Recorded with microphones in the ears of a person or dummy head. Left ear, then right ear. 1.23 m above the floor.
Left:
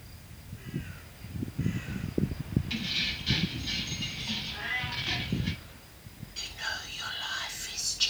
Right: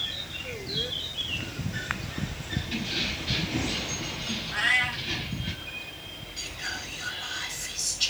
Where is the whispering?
30° left (ahead or behind), 1.1 m.